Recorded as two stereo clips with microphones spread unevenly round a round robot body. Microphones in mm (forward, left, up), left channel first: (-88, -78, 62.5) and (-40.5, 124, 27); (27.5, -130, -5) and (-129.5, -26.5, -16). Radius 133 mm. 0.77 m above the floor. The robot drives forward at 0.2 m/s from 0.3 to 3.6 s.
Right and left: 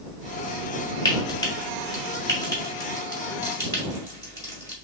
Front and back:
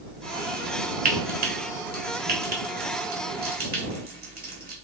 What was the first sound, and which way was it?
Frying, 175° right.